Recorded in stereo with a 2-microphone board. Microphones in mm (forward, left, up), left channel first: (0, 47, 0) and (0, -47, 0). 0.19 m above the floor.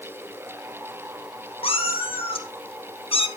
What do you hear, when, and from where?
1.6 s a cat meowing: 80° left, 2 m